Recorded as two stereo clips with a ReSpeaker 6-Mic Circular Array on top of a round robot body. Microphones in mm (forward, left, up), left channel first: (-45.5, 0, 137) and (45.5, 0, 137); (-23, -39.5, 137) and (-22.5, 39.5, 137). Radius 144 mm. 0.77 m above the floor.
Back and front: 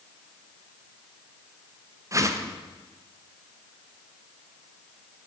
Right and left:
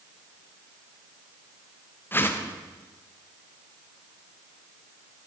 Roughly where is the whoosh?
Ahead right.